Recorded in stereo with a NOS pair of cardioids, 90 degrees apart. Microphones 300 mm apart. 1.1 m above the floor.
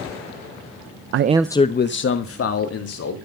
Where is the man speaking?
50° right, 0.5 m; by 3.1 s 55° left, 2.5 m.